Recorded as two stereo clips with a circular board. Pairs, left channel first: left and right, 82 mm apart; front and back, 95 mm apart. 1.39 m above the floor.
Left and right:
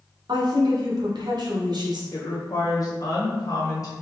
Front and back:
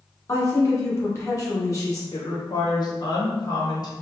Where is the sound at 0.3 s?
55° right, 1.4 m.